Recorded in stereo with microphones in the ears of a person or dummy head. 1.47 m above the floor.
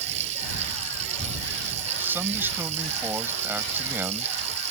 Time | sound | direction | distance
0.0 | running water | 40° right (ahead or behind) | ?
2.0 | a man speaking | 10° right (ahead or behind) | ?